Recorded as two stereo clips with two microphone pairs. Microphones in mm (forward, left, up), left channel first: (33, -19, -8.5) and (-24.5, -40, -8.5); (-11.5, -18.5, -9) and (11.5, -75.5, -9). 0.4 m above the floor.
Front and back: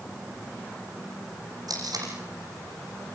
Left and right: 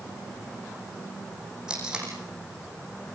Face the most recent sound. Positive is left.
turn(degrees=-145)